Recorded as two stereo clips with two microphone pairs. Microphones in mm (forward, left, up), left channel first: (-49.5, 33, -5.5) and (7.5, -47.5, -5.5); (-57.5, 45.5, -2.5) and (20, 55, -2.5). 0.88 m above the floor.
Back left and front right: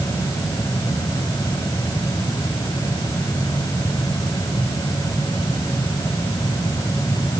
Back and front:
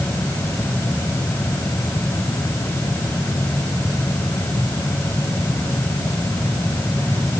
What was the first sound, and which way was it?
Only background noise.